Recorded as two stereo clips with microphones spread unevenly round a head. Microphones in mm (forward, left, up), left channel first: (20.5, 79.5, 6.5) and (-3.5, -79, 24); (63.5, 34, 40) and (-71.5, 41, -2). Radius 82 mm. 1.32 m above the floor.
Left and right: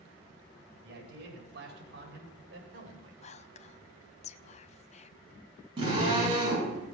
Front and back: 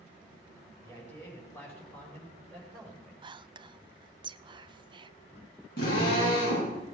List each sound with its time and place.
0.8 s a man speaking: 75° right, 5.5 m; by 3.1 s 85° right, 4.5 m
3.2 s whispering: 130° left, 0.6 m
5.8 s a drill: 35° right, 9.5 m